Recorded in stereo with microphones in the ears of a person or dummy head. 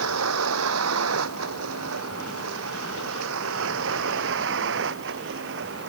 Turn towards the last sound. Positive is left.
turn(degrees=-65)  # may be behind; listen again after turning